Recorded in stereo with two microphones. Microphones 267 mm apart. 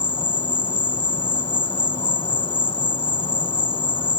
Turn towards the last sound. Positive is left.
turn(degrees=20)  # may be behind; listen again after turning